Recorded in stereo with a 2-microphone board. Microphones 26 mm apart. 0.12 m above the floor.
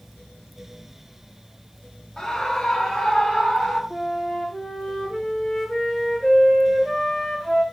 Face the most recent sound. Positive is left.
turn(degrees=20)  # may be behind; listen again after turning